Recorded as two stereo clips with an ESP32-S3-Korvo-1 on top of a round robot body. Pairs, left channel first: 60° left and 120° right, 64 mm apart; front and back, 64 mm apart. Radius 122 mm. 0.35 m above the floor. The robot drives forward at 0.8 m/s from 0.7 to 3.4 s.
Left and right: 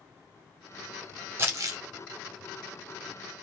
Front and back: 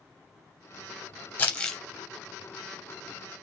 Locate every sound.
1.4 s crumpling: 60° right, 0.7 m; by 1.8 s 85° right, 0.6 m